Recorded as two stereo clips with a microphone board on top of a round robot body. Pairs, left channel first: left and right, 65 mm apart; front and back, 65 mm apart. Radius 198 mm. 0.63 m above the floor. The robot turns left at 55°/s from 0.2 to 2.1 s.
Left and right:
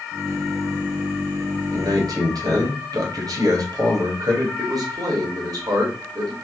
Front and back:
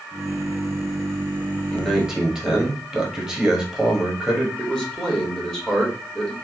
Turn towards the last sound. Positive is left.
turn(degrees=-80)